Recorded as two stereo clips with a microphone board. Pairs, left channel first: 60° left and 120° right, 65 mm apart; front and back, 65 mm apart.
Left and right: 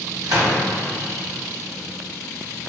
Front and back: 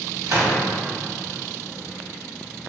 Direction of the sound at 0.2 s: 140° right.